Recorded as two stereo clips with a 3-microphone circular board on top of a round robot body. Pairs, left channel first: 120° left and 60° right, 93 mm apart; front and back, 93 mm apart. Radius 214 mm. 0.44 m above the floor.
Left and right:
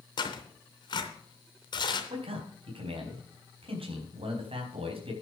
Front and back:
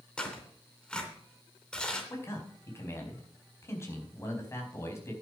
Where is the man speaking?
60° right, 4.5 m.